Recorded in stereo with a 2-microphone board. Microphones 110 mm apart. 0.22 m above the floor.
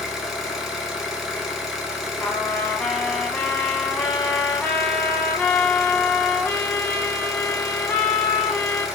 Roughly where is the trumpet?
Centre.